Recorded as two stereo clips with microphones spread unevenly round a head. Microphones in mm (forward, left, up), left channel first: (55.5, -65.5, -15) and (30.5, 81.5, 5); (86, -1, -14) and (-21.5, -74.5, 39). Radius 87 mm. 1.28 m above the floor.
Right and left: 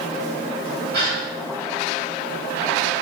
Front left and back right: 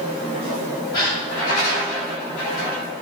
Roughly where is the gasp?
Behind left.